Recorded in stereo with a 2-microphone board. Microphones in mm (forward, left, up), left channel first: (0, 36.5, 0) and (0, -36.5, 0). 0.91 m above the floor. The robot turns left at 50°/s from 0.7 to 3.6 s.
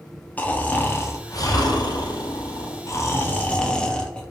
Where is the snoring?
160° left, 0.6 m; by 4.2 s 15° left, 0.6 m.